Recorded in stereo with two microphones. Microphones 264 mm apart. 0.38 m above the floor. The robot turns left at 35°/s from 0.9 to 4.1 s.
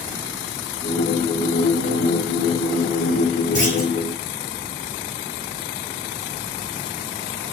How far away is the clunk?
About 10 m.